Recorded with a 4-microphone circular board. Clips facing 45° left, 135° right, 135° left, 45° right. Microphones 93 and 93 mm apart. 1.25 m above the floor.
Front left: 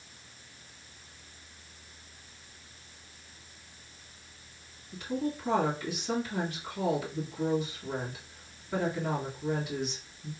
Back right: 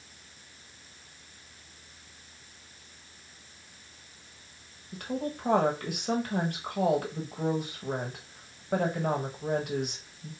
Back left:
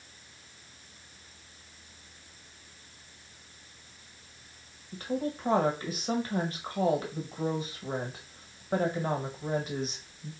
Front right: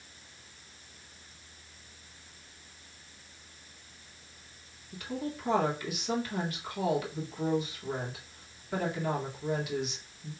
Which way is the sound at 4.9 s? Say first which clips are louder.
Front left 1 dB, back left 4 dB; 170° right.